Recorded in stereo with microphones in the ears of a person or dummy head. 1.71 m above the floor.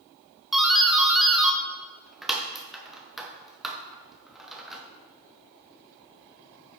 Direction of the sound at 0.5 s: 5° left (ahead or behind).